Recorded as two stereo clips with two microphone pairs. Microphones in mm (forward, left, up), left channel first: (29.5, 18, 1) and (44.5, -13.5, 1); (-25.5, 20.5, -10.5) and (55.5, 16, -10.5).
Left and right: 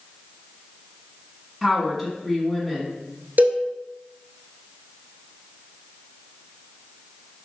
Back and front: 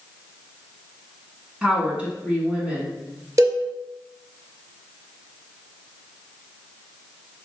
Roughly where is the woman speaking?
Ahead left.